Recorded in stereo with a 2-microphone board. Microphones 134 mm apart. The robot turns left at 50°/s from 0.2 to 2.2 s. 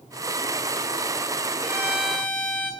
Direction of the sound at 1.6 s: 25° right (ahead or behind).